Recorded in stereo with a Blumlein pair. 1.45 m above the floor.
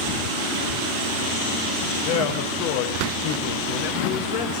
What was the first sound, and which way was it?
A man speaking, 45° left.